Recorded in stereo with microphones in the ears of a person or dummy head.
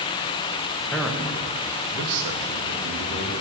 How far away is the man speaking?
About 1.6 m.